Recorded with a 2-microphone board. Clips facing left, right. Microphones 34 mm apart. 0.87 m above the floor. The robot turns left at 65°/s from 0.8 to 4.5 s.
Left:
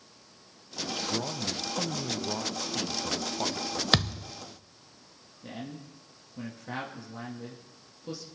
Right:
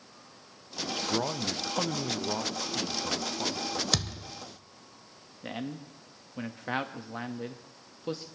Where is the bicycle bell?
No bicycle bell in this recording.